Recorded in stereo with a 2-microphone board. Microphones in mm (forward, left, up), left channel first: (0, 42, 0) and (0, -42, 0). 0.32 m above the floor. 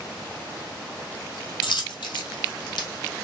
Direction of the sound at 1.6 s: 70° left (ahead or behind).